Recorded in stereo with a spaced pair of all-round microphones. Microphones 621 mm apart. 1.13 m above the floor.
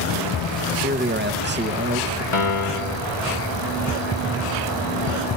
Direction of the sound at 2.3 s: 50° left (ahead or behind).